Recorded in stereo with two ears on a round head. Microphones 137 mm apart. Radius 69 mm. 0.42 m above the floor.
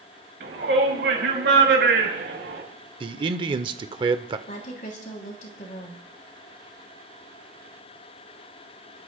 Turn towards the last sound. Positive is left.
turn(degrees=50)  # may be behind; listen again after turning